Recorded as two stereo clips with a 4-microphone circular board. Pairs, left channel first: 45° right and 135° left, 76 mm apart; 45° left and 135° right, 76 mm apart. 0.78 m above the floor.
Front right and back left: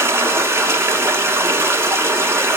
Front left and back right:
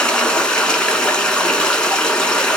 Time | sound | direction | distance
0.0 | running water | 115° left | 0.8 m